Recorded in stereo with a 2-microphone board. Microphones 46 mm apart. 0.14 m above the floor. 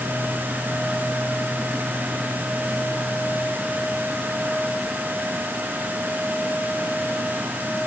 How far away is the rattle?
I don't hear a rattle.